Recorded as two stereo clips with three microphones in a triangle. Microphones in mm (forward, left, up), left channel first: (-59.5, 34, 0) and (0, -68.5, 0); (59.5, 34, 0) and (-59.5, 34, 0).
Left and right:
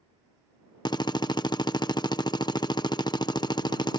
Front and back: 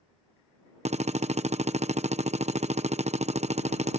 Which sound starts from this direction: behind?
A drill, at 0.8 s.